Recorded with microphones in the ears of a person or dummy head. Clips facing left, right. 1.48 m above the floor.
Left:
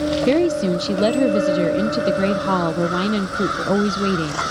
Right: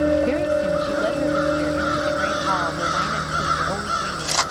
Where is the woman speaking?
55° left (ahead or behind).